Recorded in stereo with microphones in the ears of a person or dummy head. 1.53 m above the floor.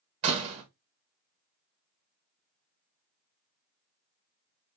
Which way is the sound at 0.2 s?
40° right (ahead or behind).